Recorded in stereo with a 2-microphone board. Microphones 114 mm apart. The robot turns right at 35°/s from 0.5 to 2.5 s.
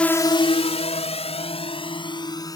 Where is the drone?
10° left (ahead or behind); by 2.6 s 35° left (ahead or behind).